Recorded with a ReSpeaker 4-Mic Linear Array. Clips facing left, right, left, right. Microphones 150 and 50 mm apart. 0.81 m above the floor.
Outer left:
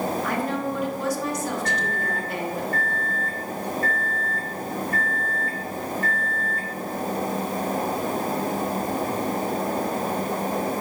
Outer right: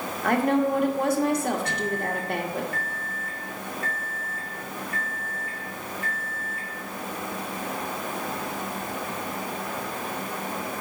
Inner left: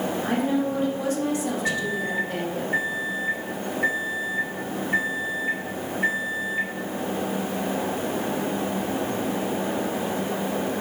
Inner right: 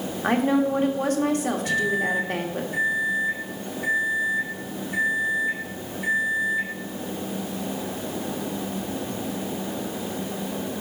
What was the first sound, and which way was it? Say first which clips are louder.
A woman speaking: outer right 4 dB, inner right 5 dB; 60° right (ahead or behind).